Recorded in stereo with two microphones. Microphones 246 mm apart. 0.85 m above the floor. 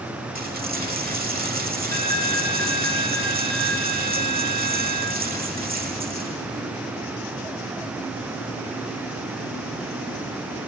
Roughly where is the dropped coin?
Right.